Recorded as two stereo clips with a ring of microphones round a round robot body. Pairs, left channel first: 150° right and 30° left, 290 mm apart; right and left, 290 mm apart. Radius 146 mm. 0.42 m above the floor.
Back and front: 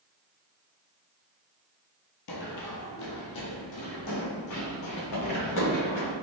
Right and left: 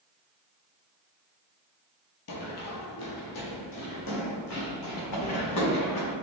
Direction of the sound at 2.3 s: 130° right.